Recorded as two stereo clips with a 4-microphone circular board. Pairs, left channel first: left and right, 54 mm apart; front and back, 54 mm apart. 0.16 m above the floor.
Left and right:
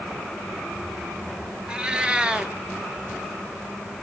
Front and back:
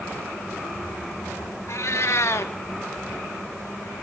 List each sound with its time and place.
1.7 s a cat meowing: 15° right, 0.9 m